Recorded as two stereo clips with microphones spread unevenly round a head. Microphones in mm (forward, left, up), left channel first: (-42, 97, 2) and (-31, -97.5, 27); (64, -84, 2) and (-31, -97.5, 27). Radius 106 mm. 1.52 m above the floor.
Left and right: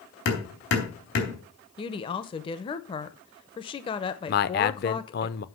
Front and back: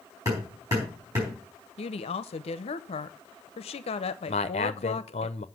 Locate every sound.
0.2 s hammering: 120° left, 3.5 m
1.8 s a woman speaking: 25° left, 0.6 m
4.3 s a man speaking: 45° left, 0.5 m